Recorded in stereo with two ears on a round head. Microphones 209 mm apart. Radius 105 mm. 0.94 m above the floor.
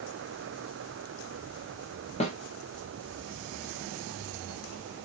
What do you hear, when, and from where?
2.2 s a snare drum: 30° left (ahead or behind), 0.8 m